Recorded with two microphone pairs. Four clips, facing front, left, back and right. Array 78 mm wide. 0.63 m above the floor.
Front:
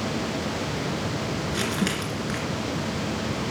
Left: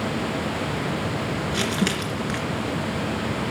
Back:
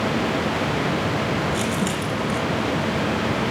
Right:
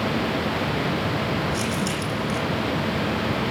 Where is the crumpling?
55° left, 2 m.